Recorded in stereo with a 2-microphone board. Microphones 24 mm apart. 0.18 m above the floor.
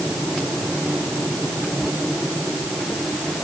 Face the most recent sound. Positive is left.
No sound to turn to.